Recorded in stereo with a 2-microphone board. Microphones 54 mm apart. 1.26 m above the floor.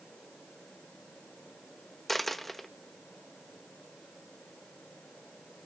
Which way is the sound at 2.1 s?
Centre (ahead or behind).